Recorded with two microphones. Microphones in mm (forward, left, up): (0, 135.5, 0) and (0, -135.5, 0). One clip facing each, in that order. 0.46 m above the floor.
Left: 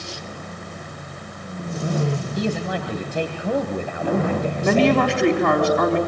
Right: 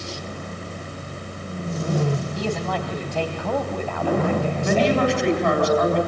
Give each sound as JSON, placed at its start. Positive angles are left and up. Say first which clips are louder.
{"t": 2.4, "sound": "a man speaking", "louder": "left 2 dB", "side_deg": 20, "distance_m": 2.5}
{"t": 4.6, "sound": "a woman speaking", "louder": "left 3 dB", "side_deg": 70, "distance_m": 3.5}